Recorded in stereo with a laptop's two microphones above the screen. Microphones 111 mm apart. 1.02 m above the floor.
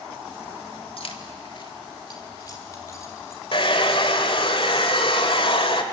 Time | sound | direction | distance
1.0 | keys jangling | 60° left (ahead or behind) | 1.6 m
3.5 | a hair dryer | 55° left (ahead or behind) | 1.6 m